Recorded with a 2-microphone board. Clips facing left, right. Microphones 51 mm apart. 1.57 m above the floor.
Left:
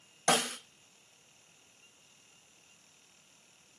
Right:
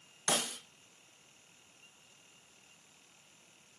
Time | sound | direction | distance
0.3 | a snare drum | 65° left (ahead or behind) | 0.7 m